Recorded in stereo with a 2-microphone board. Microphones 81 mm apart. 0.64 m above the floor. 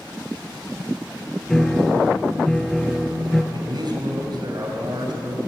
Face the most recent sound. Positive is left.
turn(degrees=-60)  # may be behind; listen again after turning